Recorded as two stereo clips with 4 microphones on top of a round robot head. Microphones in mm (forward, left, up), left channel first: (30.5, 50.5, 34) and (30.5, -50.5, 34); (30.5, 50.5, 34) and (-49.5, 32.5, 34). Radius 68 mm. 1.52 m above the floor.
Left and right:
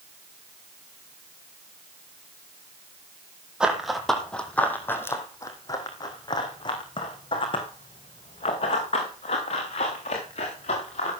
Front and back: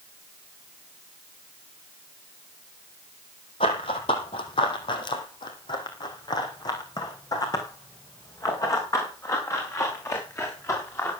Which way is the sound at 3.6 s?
10° right.